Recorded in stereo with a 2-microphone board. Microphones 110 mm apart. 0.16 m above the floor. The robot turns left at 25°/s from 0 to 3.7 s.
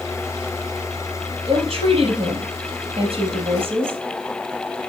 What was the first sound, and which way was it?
A woman speaking, 65° right.